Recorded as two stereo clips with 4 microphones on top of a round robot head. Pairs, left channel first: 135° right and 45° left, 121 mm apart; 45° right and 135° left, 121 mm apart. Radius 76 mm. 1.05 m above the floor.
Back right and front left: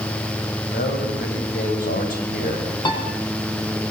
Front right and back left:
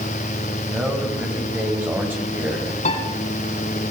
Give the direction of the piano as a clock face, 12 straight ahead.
3 o'clock.